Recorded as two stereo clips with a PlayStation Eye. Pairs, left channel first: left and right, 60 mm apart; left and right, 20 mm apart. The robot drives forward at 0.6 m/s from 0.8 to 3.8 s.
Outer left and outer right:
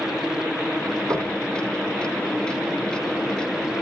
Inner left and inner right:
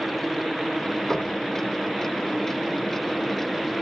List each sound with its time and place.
1.1 s knocking: 80° right, 5.5 m; by 1.4 s 85° right, 5.5 m